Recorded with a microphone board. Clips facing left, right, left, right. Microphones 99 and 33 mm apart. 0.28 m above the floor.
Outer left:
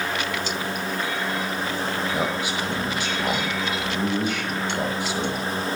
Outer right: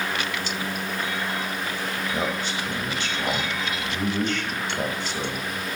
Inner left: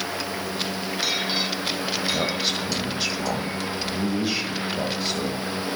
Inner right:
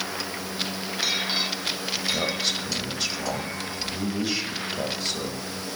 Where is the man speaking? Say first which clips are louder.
Outer left 2 dB, inner left 2 dB; 10° left (ahead or behind), 1.7 m.